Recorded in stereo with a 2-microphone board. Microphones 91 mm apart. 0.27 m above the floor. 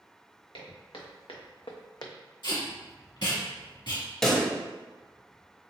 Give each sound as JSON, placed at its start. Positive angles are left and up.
{"t": 0.5, "sound": "footsteps", "side_deg": 70, "distance_m": 1.7}
{"t": 2.4, "sound": "tape being pulled", "side_deg": 60, "distance_m": 1.8}
{"t": 4.2, "sound": "a pop", "side_deg": 5, "distance_m": 1.0}